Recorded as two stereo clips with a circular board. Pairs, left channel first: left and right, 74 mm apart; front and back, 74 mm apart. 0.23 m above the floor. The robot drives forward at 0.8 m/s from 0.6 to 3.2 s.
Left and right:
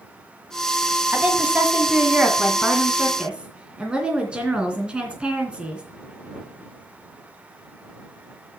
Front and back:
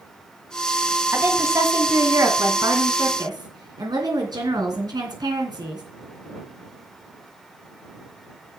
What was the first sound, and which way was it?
A woman speaking, 140° right.